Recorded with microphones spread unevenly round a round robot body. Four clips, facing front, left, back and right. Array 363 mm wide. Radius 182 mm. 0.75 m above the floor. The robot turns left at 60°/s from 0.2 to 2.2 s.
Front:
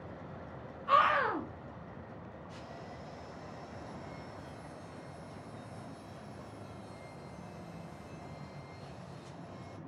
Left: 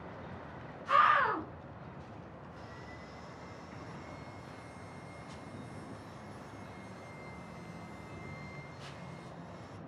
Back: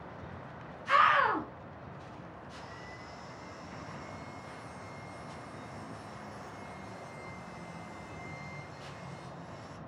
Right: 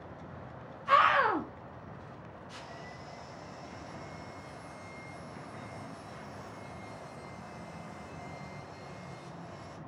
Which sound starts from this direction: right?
Sawing, at 2.6 s.